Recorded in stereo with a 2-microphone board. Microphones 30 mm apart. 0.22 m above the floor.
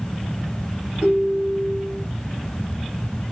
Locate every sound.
1.0 s a ringtone: 40° right (ahead or behind), 1.9 m